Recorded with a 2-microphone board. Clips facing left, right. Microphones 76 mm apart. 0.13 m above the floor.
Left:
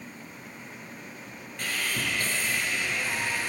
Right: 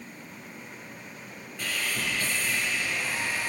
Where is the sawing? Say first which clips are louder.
Left 1 dB; 50° left (ahead or behind), 2.5 m.